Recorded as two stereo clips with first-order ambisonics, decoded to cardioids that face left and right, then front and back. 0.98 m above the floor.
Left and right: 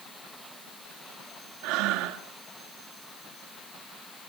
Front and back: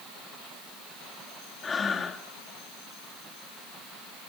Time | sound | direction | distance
1.6 | breathing | 70° right | 1.6 m